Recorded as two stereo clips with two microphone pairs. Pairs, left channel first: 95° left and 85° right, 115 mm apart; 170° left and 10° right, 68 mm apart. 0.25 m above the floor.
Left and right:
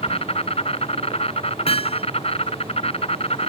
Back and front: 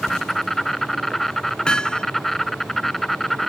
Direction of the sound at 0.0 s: 85° left.